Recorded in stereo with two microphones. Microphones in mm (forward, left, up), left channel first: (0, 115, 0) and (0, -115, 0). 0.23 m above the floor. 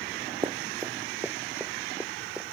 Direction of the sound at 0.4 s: 20° right (ahead or behind).